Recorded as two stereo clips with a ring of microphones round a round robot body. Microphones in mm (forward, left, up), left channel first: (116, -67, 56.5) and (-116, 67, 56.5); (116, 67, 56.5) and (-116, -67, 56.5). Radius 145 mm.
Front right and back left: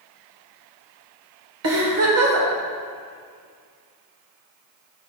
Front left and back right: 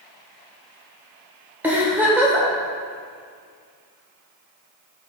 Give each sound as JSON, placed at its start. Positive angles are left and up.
{"t": 1.6, "sound": "a giggle", "azimuth_deg": 125, "distance_m": 1.7}